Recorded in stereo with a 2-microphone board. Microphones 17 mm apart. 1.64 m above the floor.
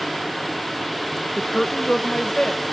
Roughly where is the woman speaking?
Left.